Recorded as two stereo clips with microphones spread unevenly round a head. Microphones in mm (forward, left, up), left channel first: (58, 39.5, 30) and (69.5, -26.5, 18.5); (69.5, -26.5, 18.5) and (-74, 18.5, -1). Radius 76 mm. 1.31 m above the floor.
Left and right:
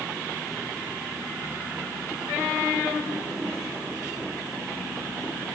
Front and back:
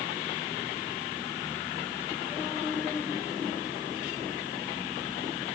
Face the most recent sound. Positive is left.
No sound to turn to.